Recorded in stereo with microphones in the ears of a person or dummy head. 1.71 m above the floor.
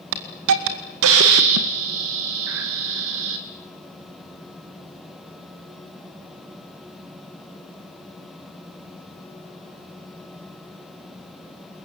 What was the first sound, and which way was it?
A hiss, 65° right (ahead or behind).